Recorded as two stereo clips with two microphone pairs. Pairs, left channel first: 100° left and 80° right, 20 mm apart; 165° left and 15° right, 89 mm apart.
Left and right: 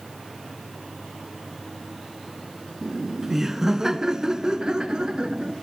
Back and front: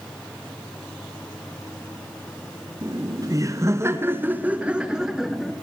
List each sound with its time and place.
2.8 s laughter: 10° right, 2.0 m; by 5.5 s 105° right, 2 m